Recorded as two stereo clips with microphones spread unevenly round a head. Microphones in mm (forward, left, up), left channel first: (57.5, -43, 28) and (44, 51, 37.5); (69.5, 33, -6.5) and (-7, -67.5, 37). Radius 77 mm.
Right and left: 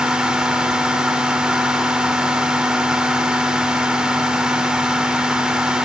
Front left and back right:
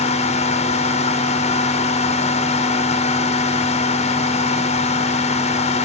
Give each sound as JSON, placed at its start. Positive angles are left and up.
{"t": 0.0, "sound": "a fan", "azimuth_deg": 15, "distance_m": 2.0}